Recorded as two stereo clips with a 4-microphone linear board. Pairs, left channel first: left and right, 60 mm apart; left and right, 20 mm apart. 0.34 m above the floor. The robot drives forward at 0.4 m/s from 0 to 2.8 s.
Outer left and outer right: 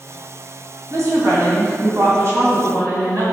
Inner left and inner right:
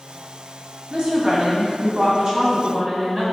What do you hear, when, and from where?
0.9 s a woman speaking: 60° right (ahead or behind), 1.9 m; by 3.2 s 50° right (ahead or behind), 2 m